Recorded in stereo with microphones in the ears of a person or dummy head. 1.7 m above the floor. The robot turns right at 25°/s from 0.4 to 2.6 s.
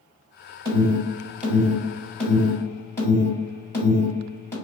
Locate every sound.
0.7 s an alarm: 30° right (ahead or behind), 1.9 m; by 4.5 s 15° left (ahead or behind), 1.9 m